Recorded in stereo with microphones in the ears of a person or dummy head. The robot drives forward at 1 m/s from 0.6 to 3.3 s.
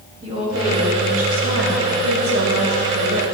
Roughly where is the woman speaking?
Right.